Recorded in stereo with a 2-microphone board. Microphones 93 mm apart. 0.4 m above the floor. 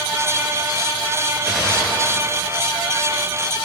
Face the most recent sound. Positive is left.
turn(degrees=-5)  # may be behind; listen again after turning